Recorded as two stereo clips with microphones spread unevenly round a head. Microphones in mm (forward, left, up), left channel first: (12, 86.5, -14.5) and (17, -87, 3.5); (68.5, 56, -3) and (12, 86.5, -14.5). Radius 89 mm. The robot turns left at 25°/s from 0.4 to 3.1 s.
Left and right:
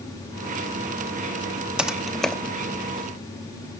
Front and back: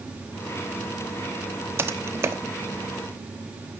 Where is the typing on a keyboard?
160° right, 0.8 m; by 2.3 s 175° right, 0.8 m.